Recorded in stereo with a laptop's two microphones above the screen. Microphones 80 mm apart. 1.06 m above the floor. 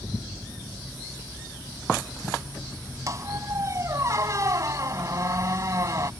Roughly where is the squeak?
Right.